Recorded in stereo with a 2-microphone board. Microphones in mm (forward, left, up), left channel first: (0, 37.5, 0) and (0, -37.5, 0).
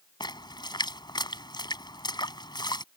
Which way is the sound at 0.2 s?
70° left (ahead or behind).